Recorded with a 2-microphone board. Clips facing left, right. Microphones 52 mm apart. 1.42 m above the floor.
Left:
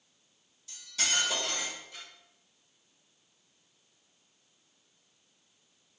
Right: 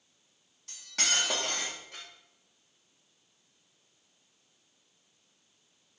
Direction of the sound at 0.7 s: 60° right (ahead or behind).